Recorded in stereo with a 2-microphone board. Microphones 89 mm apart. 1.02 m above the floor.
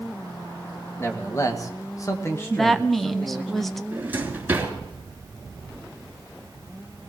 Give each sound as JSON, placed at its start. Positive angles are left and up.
{"t": 1.0, "sound": "a man speaking", "side_deg": 30, "distance_m": 1.6}
{"t": 2.5, "sound": "a woman speaking", "side_deg": 5, "distance_m": 0.6}
{"t": 3.9, "sound": "a drawer", "side_deg": -20, "distance_m": 3.0}